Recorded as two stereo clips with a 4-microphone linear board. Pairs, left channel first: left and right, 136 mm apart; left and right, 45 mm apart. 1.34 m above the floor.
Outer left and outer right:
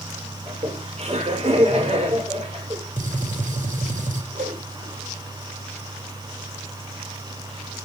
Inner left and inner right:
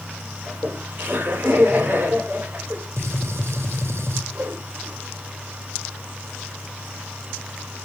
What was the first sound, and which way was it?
Laughter, 50° right (ahead or behind).